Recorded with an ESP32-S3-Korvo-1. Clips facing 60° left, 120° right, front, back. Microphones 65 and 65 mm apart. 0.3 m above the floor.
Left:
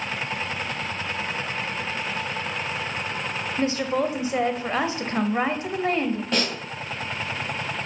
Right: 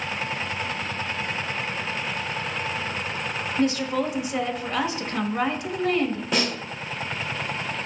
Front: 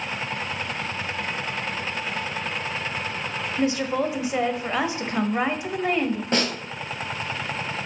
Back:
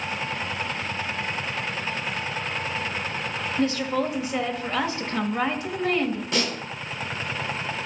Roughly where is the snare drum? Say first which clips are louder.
Right 2 dB, front 4 dB; ahead right.